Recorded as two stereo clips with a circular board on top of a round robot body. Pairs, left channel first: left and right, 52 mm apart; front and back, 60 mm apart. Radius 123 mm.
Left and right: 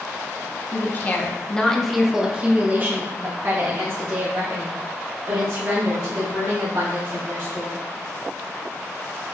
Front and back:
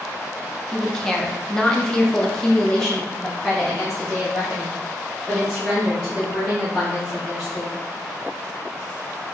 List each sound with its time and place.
0.7 s a woman speaking: 80° left, 1.1 m; by 7.8 s 90° right, 3.5 m